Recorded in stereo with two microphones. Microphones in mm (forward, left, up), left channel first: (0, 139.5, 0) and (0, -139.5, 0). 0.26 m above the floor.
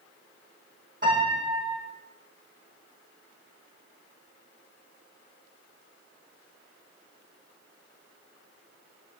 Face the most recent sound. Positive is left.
turn(degrees=-30)  # may be behind; listen again after turning